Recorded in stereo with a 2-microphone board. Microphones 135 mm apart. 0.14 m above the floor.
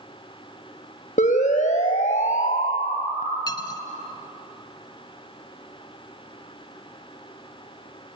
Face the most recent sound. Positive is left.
turn(degrees=30)  # may be behind; listen again after turning